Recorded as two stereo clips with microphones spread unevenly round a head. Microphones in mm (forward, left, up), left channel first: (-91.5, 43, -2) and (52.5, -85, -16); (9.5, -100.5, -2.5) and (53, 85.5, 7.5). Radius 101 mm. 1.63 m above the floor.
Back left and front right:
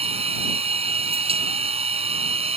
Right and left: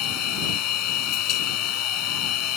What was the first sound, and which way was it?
A machine running, 105° right.